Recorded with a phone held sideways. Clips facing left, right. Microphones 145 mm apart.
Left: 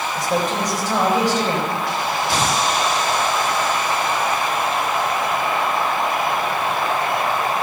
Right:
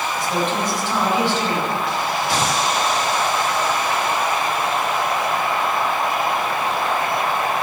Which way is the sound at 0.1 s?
50° left (ahead or behind).